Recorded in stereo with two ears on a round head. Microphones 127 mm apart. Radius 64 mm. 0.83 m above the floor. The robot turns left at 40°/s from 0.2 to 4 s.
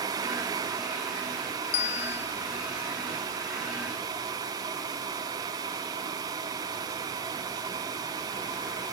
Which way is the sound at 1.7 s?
65° left (ahead or behind).